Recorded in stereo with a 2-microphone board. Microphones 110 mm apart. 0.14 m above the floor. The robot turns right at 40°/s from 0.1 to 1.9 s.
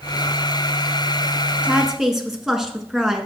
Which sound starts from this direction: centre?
A woman speaking, at 1.6 s.